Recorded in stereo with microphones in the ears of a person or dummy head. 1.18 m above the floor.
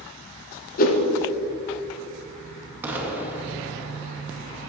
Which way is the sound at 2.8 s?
10° right (ahead or behind).